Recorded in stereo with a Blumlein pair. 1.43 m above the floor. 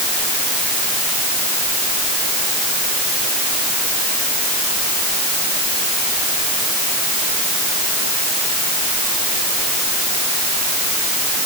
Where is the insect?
No insect in this recording.